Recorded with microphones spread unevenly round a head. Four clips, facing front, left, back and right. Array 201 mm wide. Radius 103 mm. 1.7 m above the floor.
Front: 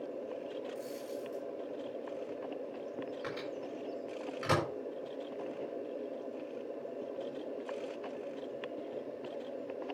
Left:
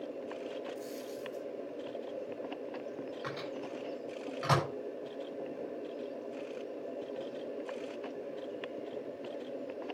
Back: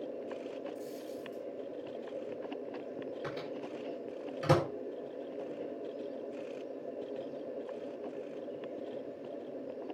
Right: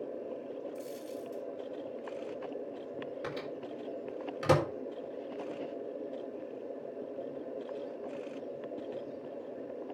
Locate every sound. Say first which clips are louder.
0.8 s a dropped coin: even, front 1 dB; 115° right, 4 m
3.2 s a microwave: even, even; 120° right, 4 m